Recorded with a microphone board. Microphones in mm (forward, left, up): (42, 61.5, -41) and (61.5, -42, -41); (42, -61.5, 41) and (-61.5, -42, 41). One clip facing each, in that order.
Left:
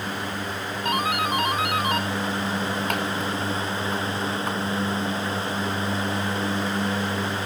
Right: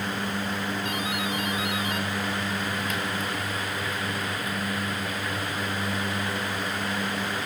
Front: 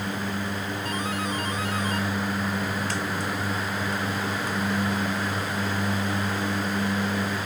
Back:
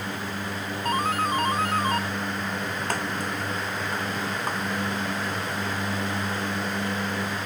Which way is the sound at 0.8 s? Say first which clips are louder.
Left 5 dB, back 7 dB; 130° left.